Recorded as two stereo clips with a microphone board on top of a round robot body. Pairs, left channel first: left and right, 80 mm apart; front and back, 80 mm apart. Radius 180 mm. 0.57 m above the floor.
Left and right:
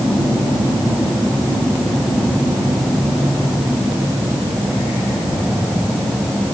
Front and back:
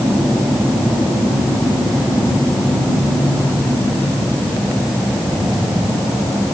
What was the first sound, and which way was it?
Only background noise.